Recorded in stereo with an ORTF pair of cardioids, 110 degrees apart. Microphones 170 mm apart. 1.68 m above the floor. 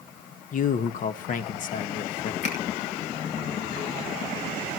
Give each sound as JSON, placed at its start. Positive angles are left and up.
{"t": 0.5, "sound": "a man speaking", "azimuth_deg": 50, "distance_m": 1.6}
{"t": 2.4, "sound": "a finger snap", "azimuth_deg": 45, "distance_m": 6.0}